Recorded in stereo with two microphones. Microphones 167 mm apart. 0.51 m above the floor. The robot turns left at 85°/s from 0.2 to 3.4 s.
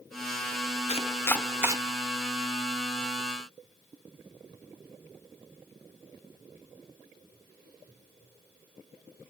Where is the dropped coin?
I don't hear a dropped coin.